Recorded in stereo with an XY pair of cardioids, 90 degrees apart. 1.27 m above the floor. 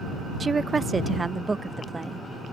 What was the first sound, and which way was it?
A woman speaking, 40° right.